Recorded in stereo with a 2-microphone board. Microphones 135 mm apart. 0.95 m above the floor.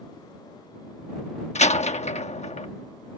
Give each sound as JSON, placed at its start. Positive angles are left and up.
{"t": 1.6, "sound": "a door slam", "side_deg": 55}